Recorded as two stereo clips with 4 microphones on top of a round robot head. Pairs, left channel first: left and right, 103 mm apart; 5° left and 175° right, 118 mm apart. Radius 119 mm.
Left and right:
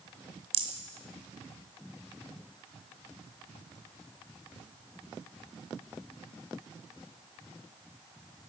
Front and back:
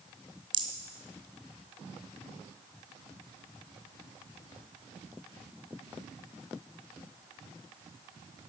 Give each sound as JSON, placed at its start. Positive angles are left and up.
{"t": 0.5, "sound": "a rattle", "azimuth_deg": -125, "distance_m": 1.9}